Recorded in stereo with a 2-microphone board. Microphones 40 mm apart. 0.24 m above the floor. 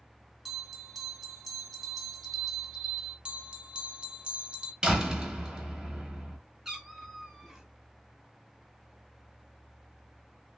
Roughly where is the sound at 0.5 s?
Centre.